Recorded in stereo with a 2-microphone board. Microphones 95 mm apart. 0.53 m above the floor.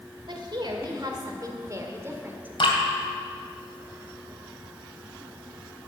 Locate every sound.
0.3 s a woman speaking: 55° right (ahead or behind), 2 m; by 2.5 s 20° right (ahead or behind), 1.6 m
2.6 s dripping: 65° left (ahead or behind), 2.5 m